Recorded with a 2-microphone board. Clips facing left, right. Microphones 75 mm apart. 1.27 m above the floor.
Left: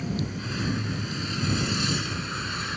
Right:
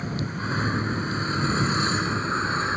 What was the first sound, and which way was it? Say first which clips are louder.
A vehicle: right 1 dB; 40° right (ahead or behind).